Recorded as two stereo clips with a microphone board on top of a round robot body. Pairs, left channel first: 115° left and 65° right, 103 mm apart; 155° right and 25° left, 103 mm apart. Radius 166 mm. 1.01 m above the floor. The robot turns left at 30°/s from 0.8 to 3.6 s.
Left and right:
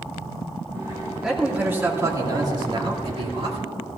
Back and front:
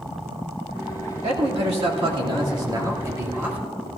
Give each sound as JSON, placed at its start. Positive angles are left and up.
{"t": 1.2, "sound": "a man speaking", "azimuth_deg": 20, "distance_m": 2.5}